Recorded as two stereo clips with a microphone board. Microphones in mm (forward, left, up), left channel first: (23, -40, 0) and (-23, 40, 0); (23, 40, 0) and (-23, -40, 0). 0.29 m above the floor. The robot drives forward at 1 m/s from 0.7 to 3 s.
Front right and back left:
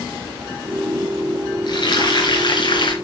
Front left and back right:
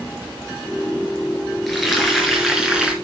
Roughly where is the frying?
Ahead right.